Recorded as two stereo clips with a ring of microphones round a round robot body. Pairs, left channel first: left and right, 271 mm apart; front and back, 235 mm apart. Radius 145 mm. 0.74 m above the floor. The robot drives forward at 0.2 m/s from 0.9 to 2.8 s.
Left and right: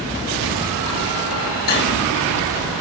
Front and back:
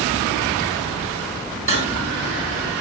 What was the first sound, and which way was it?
Cutlery clinking, 145° left.